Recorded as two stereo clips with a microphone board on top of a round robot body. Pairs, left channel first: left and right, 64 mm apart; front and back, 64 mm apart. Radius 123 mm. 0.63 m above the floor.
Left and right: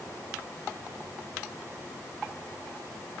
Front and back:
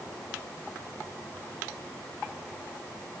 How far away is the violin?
No violin in this recording.